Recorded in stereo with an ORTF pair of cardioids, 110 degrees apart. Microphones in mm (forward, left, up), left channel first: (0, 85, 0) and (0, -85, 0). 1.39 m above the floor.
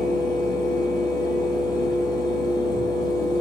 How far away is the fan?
About 0.8 m.